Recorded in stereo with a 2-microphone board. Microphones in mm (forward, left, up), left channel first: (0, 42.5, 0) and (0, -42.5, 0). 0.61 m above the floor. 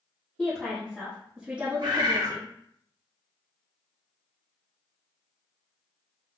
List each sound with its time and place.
0.4 s a woman speaking: 20° left (ahead or behind), 1.1 m; by 2.5 s 45° right (ahead or behind), 0.8 m
1.8 s a bird: 70° right (ahead or behind), 1.0 m